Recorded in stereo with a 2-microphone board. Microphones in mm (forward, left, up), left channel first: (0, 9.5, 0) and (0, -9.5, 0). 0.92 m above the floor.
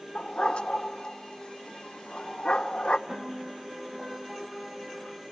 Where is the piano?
55° right (ahead or behind), 7.5 m.